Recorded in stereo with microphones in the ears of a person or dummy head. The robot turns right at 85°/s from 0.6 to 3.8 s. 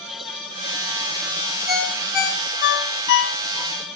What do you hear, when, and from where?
1.7 s a ringtone: 20° right (ahead or behind), 2.5 m; by 3.7 s 30° left (ahead or behind), 2.5 m